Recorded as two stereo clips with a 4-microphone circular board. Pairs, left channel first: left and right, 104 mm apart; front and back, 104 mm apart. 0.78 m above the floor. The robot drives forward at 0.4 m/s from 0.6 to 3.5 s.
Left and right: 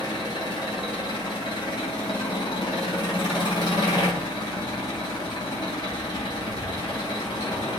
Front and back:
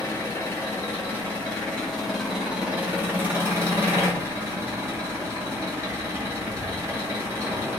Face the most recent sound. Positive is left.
turn(degrees=115)